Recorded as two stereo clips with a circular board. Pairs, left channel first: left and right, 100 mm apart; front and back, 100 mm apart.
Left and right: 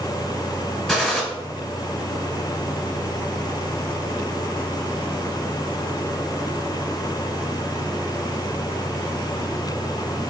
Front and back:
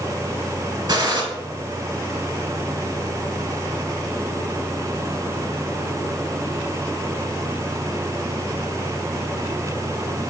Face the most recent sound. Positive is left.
turn(degrees=170)